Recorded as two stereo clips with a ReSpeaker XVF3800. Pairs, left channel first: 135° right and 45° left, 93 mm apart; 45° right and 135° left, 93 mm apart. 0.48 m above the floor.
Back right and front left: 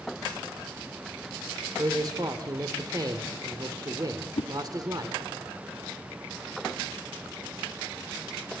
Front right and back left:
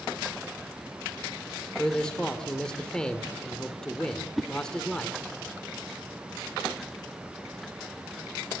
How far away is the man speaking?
About 1.8 m.